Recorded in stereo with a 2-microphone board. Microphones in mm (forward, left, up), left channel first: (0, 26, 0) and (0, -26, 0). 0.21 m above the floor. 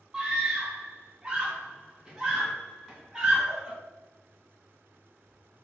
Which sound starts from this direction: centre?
A scream, at 0.1 s.